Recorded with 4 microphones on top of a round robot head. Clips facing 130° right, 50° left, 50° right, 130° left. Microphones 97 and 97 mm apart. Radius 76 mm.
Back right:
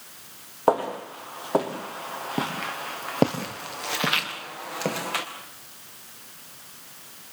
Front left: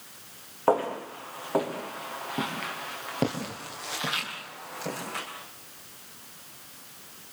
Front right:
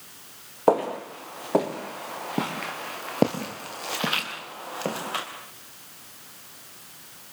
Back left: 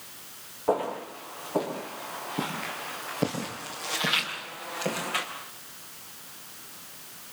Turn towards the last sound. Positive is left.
turn(degrees=-115)